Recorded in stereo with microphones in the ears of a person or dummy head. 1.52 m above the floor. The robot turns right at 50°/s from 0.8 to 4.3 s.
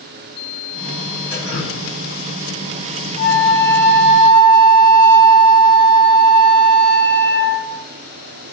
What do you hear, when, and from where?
1.3 s dripping: 45° left (ahead or behind), 1.6 m; by 1.8 s 25° left (ahead or behind), 1.6 m
3.2 s a flute: 135° left, 0.8 m; by 7.8 s 165° right, 0.8 m